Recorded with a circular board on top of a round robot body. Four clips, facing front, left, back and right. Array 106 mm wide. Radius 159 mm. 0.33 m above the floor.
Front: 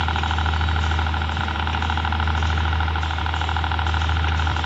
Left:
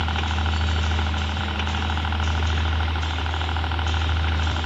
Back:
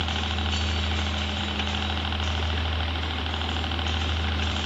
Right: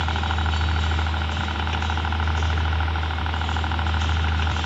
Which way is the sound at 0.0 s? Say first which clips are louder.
Right 1 dB, front 7 dB; 10° right.